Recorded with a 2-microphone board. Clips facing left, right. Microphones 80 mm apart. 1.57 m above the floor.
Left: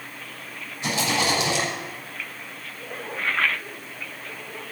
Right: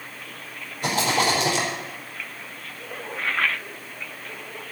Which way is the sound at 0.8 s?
55° right (ahead or behind).